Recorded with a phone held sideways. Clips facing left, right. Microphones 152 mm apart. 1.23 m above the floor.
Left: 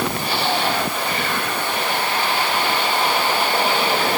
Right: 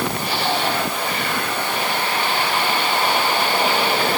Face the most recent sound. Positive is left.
No sound to turn to.